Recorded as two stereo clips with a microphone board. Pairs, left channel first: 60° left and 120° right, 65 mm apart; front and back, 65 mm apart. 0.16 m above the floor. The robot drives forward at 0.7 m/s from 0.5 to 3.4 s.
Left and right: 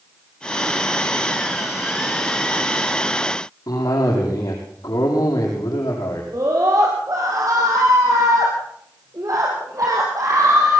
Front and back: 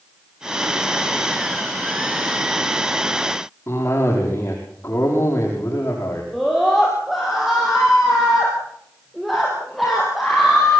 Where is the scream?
90° right, 5 m.